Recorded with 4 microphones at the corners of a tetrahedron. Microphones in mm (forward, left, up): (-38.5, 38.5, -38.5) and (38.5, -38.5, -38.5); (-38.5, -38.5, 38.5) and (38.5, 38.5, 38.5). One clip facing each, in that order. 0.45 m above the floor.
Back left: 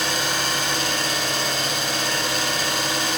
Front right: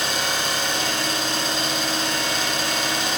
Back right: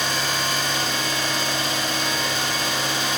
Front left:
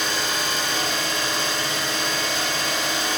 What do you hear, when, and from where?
0.0 s an engine running: 110° right, 1.4 m